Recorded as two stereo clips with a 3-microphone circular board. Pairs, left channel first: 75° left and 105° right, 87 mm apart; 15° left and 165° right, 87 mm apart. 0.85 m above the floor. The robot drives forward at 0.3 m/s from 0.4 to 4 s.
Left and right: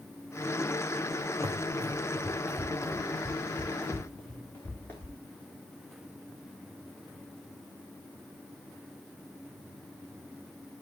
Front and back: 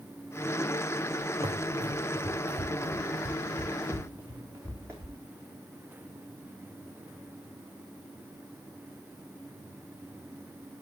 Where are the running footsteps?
155° right, 2.5 m; by 5.2 s 140° left, 6 m.